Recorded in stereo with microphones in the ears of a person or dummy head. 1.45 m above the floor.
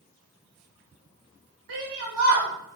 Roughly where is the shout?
Right.